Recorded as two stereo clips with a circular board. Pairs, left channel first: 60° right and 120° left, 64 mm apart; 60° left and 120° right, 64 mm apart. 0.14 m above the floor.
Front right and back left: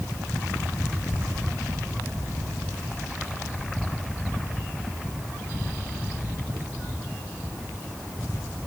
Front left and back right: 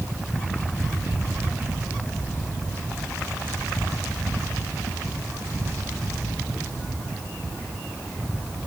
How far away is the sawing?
No sawing in this recording.